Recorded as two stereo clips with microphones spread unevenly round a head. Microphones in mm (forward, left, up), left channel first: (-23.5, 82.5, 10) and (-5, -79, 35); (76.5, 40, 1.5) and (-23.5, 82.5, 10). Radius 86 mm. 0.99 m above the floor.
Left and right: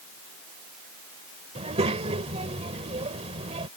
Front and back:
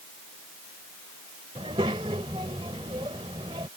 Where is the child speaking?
140° right.